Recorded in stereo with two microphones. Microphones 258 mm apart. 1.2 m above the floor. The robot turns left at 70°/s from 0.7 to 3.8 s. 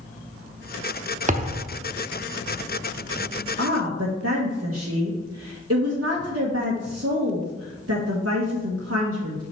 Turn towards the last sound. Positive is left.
turn(degrees=-60)  # may be behind; listen again after turning